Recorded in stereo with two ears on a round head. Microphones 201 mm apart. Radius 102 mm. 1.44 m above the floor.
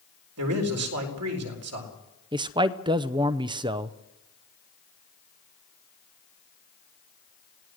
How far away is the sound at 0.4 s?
About 4 m.